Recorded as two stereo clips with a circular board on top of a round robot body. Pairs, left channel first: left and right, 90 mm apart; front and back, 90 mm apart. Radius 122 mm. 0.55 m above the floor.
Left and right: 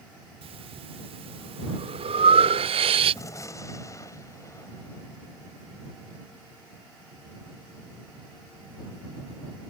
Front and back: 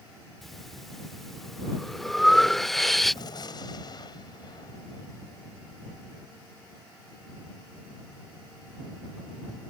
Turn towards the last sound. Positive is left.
turn(degrees=35)